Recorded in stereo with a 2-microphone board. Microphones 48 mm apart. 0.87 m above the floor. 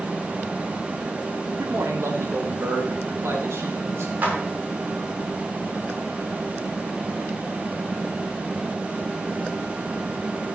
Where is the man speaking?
70° right (ahead or behind), 2.5 m; by 4.1 s 65° right (ahead or behind), 4 m.